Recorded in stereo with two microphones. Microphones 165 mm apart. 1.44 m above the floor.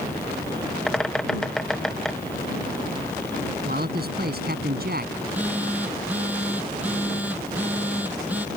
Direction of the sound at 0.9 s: 5° left (ahead or behind).